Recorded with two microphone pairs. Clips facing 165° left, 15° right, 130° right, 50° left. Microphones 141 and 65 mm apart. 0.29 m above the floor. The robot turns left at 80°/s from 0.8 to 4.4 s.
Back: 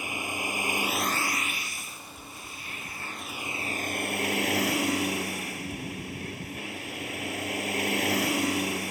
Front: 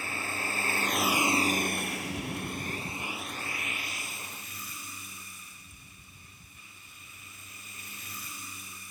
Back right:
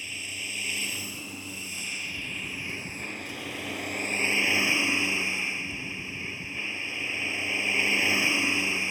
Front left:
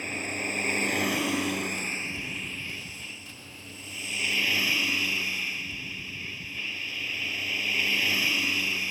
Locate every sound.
0.0 s a vehicle: 90° left; by 8.9 s 160° left